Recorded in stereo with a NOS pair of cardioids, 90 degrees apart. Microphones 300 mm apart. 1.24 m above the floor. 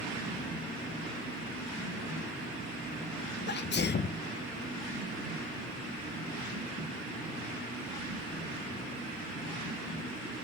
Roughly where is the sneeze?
Ahead left.